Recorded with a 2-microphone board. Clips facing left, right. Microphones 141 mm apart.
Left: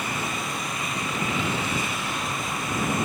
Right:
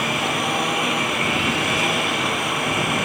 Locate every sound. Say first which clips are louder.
0.0 s a lawn mower: right 7 dB; 70° right (ahead or behind)